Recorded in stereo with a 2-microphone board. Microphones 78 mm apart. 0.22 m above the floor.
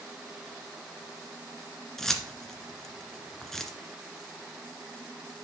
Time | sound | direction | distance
2.0 | keys jangling | 5° left (ahead or behind) | 1.7 m